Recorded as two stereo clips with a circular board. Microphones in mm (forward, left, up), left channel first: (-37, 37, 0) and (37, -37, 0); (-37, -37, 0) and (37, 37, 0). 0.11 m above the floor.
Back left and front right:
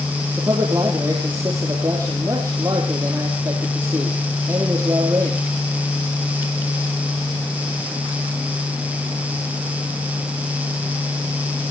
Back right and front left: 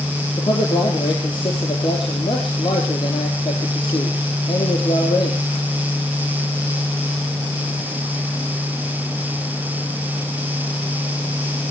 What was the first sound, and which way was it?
A man speaking, 100° right.